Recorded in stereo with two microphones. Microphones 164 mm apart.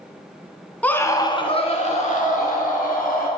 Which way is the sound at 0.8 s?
10° left (ahead or behind).